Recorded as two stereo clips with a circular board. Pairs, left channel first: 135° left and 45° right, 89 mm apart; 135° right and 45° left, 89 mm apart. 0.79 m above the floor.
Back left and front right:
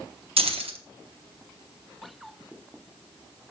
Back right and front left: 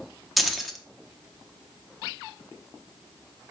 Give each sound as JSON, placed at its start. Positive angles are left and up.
{"t": 0.4, "sound": "keys jangling", "azimuth_deg": -45, "distance_m": 0.8}